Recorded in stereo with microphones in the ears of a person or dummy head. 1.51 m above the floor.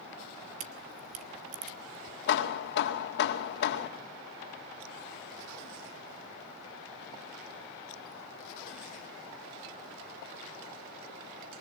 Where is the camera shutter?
45° right (ahead or behind), 1.9 m.